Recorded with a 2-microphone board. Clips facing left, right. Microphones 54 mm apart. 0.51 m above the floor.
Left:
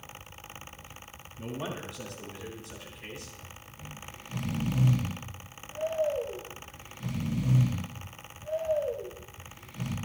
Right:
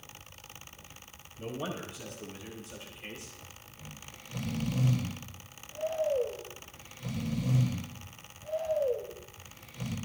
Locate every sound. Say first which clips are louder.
1.4 s a man speaking: even; 65° left (ahead or behind), 8.5 m; by 3.3 s 80° left, 8 m
3.7 s snoring: left 4 dB; 40° left (ahead or behind), 4 m